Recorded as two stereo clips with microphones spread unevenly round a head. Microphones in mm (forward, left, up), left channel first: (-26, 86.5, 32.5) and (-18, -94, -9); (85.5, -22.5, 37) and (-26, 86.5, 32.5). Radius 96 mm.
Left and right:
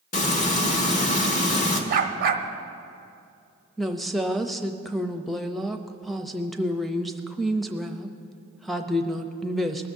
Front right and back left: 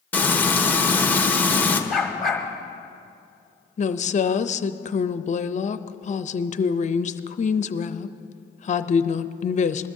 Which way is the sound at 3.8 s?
5° right.